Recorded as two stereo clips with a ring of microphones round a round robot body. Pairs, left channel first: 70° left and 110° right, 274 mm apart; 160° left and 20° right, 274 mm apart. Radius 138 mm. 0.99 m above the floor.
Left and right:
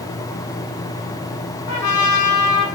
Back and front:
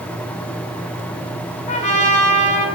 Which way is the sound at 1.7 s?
95° left.